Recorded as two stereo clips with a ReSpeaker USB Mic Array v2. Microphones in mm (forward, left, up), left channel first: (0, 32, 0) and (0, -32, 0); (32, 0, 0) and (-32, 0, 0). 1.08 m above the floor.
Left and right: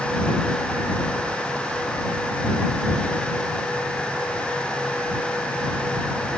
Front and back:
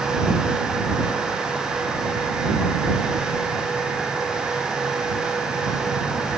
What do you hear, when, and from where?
Only background noise.